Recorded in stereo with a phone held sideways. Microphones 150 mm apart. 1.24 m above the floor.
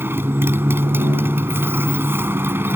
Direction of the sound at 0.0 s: 15° right (ahead or behind).